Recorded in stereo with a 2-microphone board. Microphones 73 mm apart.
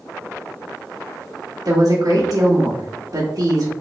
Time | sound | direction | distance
1.6 | a woman speaking | 55° right (ahead or behind) | 1.3 m